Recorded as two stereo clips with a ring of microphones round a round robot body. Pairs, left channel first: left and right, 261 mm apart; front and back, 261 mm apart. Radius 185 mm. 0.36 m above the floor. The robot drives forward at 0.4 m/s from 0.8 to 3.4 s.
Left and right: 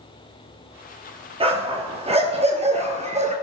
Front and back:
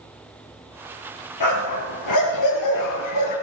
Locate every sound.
1.4 s a dog barking: 20° right, 4 m; by 3.3 s 25° right, 3 m